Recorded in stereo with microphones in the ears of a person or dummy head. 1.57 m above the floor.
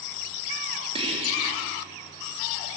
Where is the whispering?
25° right (ahead or behind), 3.5 m.